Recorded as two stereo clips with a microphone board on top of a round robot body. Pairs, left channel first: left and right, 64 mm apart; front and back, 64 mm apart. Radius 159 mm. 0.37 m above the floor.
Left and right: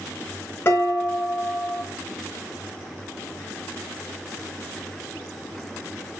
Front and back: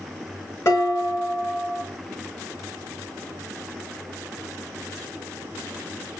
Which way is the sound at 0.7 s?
40° left.